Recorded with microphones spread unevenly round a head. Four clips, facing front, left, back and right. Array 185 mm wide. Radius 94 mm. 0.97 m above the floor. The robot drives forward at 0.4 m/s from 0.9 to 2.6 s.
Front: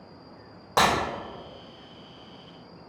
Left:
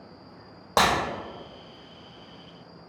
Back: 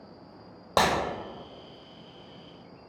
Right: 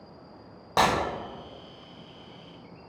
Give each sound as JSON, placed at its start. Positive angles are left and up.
{"t": 0.8, "sound": "breaking glass", "azimuth_deg": 160, "distance_m": 1.5}